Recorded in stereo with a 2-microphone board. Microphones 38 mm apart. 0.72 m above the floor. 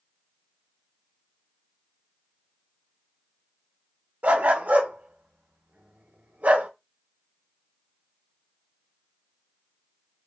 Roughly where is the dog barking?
Right.